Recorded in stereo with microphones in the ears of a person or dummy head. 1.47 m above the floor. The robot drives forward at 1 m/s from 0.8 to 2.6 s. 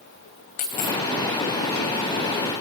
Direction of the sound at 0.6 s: 35° left (ahead or behind).